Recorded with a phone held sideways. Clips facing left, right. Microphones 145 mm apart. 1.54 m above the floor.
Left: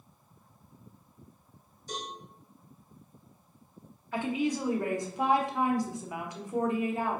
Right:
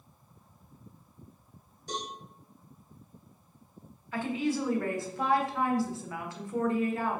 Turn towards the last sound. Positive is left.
turn(degrees=20)  # may be behind; listen again after turning